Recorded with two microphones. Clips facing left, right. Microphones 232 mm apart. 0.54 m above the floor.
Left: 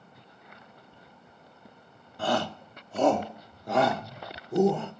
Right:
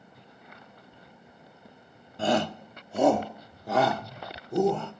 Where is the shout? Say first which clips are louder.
Right 3 dB; 20° right (ahead or behind), 1.1 m; by 4.9 s 5° left (ahead or behind), 1.8 m.